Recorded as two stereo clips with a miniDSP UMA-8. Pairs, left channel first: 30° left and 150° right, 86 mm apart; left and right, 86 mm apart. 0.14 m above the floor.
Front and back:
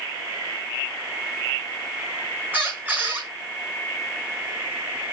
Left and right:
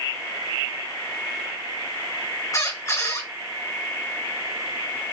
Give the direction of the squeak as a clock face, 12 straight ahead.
7 o'clock.